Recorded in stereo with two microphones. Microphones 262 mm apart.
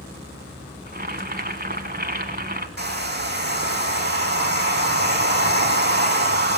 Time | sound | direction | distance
0.9 | boiling | 35° right (ahead or behind) | 1.6 m
2.8 | a hair dryer | 40° right (ahead or behind) | 2.5 m